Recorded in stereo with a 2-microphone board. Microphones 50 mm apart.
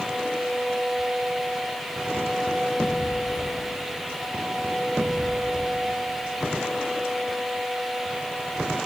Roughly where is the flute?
No flute in this recording.